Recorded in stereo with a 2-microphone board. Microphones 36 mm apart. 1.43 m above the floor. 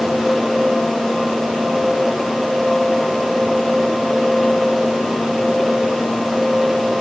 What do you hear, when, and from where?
Only background noise.